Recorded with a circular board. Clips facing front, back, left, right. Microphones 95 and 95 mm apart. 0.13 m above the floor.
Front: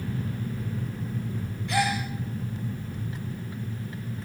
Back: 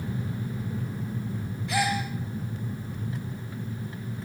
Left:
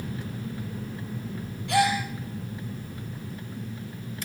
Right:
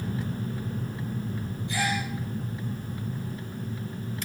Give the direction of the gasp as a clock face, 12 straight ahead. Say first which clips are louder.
Front 1 dB, left 7 dB; 9 o'clock.